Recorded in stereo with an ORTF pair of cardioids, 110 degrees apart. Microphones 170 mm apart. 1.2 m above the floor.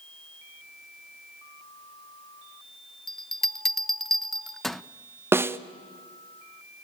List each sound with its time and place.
3.1 s a bell: straight ahead, 0.7 m
5.3 s a snare drum: 15° right, 0.9 m